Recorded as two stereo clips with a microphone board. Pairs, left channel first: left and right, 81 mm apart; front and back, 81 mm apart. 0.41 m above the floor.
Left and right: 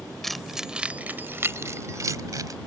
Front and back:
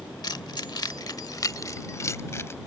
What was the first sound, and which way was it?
Keys jangling, 5° left.